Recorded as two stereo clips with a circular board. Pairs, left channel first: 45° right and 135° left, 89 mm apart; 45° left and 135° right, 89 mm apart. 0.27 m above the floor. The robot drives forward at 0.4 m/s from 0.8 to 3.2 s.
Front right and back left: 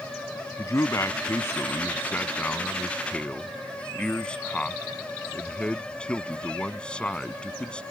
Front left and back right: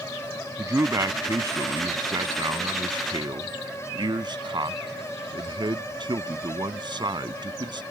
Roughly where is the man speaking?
Right.